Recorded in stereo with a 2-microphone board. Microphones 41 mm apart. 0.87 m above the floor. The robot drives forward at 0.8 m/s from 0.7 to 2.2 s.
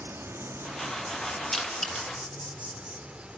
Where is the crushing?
20° left (ahead or behind), 2.5 m.